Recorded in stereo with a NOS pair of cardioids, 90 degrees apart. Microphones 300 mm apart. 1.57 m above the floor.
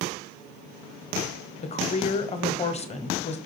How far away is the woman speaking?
About 0.6 m.